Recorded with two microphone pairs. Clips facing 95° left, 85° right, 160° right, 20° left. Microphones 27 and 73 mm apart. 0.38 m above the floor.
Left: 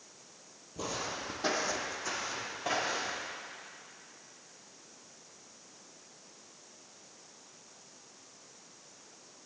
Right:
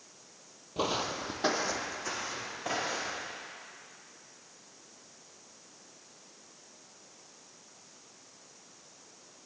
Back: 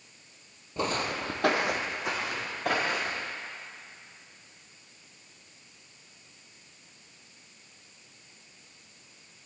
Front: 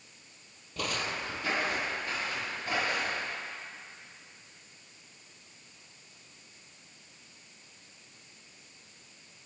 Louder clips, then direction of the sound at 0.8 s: Right 5 dB, back 4 dB; 100° right.